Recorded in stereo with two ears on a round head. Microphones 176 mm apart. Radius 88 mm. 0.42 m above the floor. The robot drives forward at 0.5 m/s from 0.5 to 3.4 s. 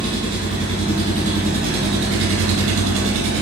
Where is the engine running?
30° right (ahead or behind), 1.3 m; by 3.4 s 60° right (ahead or behind), 0.7 m.